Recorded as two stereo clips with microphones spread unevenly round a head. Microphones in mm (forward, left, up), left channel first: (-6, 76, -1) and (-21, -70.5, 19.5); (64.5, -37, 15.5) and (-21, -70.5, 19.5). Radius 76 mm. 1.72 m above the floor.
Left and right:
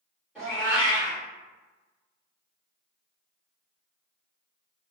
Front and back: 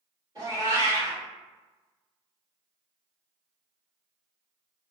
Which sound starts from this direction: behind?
A cat meowing, at 0.3 s.